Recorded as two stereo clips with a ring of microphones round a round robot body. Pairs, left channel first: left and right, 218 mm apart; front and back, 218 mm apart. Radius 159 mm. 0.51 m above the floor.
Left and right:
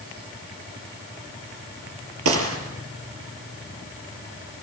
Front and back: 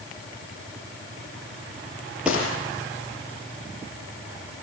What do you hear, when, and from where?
2.2 s a gunshot: 95° right, 5 m